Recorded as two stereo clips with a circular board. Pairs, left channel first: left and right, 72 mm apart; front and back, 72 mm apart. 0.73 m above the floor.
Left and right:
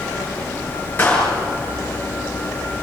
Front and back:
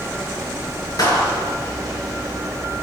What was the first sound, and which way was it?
A clap, 30° left.